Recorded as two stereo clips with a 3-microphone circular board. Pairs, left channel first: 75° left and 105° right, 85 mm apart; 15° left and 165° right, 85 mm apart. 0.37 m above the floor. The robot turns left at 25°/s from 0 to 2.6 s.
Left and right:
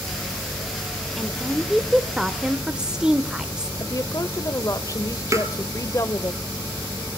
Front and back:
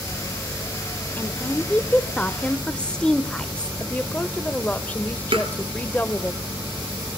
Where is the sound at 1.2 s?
5° right, 0.8 m; by 3.7 s 40° right, 0.8 m.